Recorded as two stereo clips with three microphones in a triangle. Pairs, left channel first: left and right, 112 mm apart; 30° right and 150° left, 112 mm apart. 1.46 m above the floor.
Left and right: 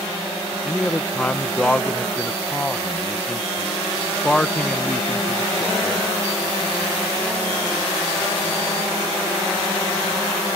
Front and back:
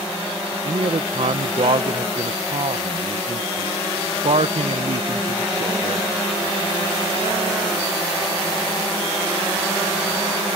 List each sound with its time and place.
0.7 s a man speaking: 170° left